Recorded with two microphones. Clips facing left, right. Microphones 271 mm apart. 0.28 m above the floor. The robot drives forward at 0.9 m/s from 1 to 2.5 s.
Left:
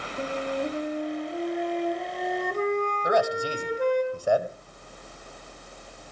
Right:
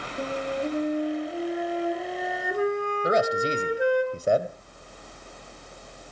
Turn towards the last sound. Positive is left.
turn(degrees=-25)  # may be behind; listen again after turning